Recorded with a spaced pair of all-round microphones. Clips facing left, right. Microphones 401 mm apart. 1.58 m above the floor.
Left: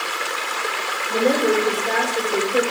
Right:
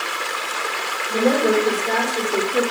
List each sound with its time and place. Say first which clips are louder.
1.1 s a woman speaking: right 1 dB; centre (ahead or behind), 4.5 m; by 2.6 s 25° right (ahead or behind), 6 m